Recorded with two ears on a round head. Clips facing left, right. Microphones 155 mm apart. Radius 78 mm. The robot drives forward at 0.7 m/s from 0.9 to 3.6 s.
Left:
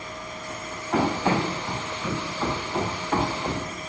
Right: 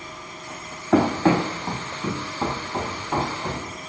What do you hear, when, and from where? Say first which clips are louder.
0.9 s running footsteps: right 5 dB; 65° right (ahead or behind), 1.6 m; by 3.8 s centre (ahead or behind), 3 m